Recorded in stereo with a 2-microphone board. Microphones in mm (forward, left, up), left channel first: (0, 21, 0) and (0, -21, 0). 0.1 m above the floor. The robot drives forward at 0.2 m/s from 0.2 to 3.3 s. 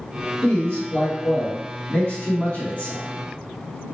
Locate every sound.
0.4 s a man speaking: 35° left (ahead or behind), 1.6 m; by 3.0 s 30° left (ahead or behind), 1.7 m